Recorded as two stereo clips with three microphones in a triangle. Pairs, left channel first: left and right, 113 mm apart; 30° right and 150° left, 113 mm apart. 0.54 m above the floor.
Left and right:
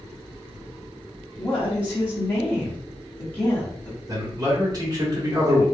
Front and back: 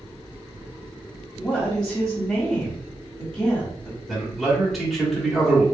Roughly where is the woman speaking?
Ahead left.